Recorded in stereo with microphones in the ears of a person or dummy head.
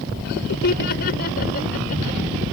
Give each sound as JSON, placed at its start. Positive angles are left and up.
{"t": 0.2, "sound": "laughter", "side_deg": 55}